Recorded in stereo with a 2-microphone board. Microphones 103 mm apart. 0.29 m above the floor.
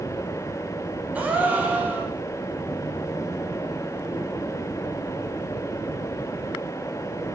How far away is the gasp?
About 1.0 m.